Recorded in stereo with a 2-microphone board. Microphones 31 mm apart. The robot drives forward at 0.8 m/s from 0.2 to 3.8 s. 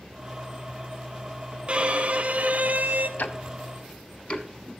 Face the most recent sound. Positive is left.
turn(degrees=40)  # may be behind; listen again after turning